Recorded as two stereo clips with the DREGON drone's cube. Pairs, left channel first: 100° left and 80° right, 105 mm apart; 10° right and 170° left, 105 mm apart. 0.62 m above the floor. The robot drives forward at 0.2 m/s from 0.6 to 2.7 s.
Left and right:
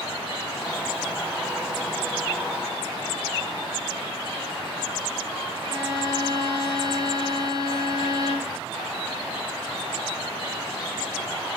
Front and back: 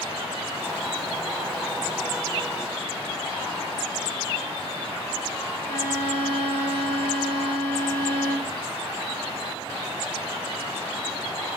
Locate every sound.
5.6 s a violin: 120° right, 2 m